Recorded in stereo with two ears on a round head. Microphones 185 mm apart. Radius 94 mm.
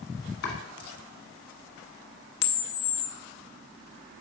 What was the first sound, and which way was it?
Chopping, 65° left (ahead or behind).